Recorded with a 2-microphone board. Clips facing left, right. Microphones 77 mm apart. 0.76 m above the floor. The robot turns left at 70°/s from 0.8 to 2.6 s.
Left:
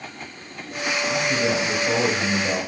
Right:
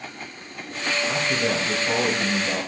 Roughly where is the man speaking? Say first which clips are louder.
Left 3 dB; behind right.